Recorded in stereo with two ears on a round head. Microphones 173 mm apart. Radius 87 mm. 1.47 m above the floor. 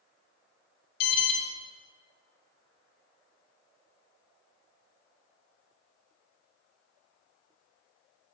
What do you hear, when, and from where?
1.0 s an alarm: 50° left (ahead or behind), 0.9 m